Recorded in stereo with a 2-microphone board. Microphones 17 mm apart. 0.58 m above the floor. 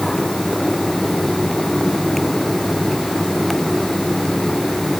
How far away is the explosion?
I don't hear an explosion.